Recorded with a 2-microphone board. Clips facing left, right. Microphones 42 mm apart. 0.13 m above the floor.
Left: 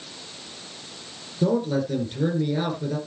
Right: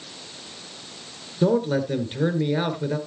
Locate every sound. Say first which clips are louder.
1.4 s a man speaking: right 2 dB; 35° right (ahead or behind), 1.8 m